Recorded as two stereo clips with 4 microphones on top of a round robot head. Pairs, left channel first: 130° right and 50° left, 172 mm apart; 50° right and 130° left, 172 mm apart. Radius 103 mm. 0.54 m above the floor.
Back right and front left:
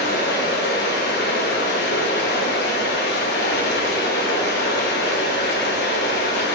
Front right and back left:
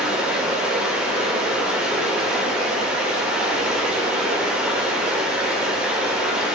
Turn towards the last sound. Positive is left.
turn(degrees=-145)